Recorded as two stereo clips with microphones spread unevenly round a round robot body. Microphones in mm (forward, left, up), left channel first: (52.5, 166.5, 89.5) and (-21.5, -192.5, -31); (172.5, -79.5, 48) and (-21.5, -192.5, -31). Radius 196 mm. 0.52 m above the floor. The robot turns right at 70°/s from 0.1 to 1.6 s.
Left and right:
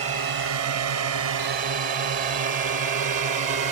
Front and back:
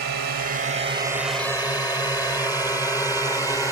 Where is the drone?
160° right; by 3.7 s 60° right.